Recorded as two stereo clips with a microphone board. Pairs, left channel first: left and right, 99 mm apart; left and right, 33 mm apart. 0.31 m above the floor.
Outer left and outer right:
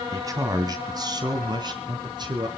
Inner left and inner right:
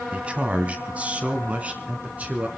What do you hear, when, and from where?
0.1 s a man speaking: 35° right (ahead or behind), 1.9 m; by 2.5 s 50° right (ahead or behind), 3.5 m